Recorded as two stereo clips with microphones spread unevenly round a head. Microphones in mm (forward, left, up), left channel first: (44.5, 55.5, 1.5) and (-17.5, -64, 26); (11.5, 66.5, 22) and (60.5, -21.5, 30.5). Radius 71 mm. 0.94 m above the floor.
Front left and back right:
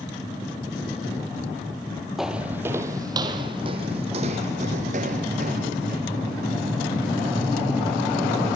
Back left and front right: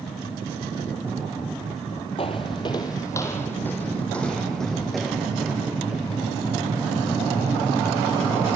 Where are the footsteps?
165° left, 1.3 m; by 6.0 s 145° right, 3 m.